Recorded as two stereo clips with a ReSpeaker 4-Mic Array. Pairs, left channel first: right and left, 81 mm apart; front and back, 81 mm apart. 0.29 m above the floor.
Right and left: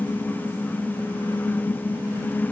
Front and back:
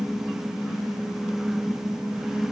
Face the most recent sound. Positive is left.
No sound to turn to.